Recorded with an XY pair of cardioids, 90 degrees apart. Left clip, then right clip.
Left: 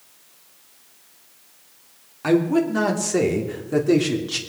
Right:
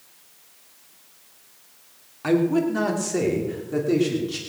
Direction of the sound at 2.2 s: 15° left.